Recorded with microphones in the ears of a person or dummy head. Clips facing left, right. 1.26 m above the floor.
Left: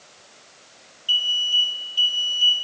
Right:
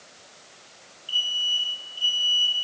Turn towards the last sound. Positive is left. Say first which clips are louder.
# left 4 dB
turn(degrees=75)  # may be behind; listen again after turning